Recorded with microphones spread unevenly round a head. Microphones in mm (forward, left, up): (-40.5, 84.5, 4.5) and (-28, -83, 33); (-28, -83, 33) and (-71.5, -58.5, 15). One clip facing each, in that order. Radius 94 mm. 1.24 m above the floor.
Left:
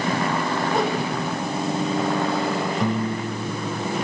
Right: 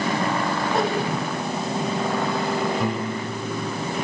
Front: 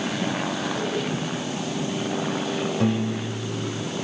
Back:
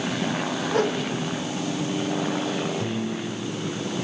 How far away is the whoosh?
About 7 m.